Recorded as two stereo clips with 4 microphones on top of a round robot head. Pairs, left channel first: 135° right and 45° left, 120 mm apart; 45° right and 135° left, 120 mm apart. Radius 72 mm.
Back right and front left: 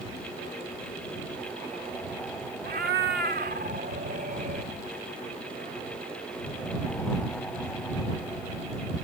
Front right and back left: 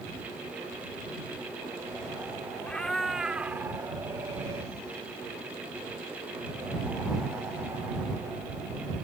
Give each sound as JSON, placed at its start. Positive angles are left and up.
{"t": 2.6, "sound": "a cat meowing", "azimuth_deg": 35}